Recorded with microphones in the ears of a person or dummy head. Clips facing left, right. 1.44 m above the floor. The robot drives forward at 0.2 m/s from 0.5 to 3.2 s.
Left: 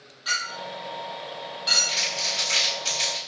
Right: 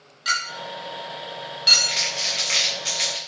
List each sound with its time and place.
0.2 s a clink: 35° right (ahead or behind), 1.1 m; by 2.0 s 45° right (ahead or behind), 0.9 m
1.9 s crumpling: 30° right (ahead or behind), 0.8 m; by 3.2 s 25° right (ahead or behind), 1.0 m